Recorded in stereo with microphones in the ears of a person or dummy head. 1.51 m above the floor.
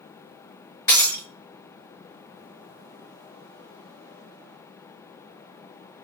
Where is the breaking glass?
20° left (ahead or behind), 5 m.